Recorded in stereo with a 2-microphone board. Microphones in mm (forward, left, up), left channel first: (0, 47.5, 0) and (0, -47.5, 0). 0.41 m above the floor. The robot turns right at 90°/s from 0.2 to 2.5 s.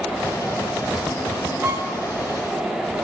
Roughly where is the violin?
Right.